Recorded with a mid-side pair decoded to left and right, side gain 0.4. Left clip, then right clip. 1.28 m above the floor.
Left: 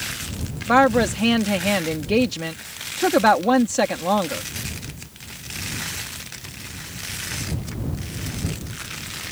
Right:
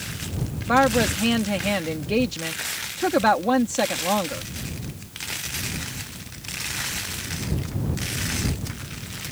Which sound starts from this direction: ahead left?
A woman speaking, at 0.7 s.